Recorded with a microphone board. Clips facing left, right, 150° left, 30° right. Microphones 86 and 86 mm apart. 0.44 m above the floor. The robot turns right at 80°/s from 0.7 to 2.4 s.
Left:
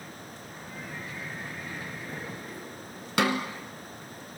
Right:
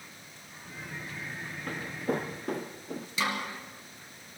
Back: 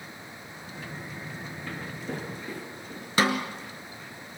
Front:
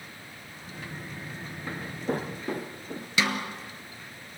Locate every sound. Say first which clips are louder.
1.7 s footsteps: right 6 dB, front 6 dB; 95° right, 2.5 m; by 3.1 s 85° right, 1.8 m
3.2 s a snare drum: left 6 dB, back 4 dB; 105° left, 1.5 m